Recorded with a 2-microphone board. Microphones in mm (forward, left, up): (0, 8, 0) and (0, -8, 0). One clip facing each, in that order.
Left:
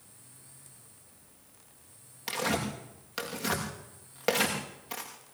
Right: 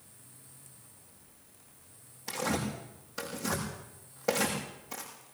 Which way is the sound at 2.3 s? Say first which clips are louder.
Left 2 dB; 80° left.